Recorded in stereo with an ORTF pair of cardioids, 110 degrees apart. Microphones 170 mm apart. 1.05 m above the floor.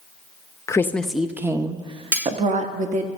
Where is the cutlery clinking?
10° right, 0.8 m.